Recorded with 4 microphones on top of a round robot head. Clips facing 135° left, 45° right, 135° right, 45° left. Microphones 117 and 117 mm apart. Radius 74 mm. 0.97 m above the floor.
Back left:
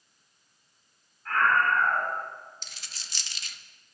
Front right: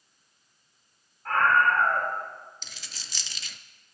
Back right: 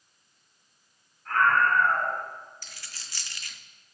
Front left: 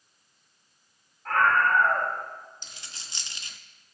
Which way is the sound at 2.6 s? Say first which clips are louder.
Front right 1 dB, front left 1 dB; 25° right.